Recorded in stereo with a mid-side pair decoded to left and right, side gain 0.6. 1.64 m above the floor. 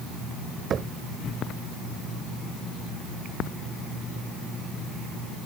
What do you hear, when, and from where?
0.7 s knocking: 40° right